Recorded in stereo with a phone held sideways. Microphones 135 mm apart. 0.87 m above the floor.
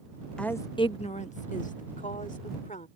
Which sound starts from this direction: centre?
A woman speaking, at 0.4 s.